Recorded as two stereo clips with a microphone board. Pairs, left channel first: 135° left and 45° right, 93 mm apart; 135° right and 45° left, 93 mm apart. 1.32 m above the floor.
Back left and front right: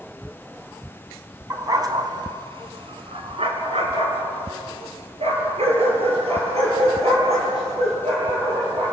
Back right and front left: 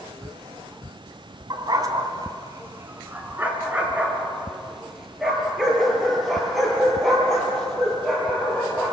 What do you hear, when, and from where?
1.5 s a dog barking: 10° left, 2.5 m; by 8.9 s 50° right, 11 m